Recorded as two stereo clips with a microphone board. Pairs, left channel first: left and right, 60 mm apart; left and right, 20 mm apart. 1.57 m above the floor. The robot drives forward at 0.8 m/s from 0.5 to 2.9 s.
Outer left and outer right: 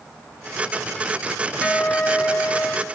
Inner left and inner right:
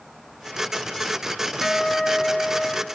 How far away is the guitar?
About 0.8 m.